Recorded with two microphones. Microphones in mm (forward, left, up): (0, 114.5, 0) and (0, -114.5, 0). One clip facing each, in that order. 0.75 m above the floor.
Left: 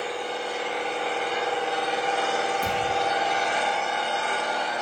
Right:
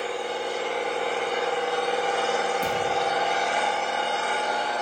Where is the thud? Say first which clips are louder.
Right 1 dB; 15° right (ahead or behind), 3.5 m.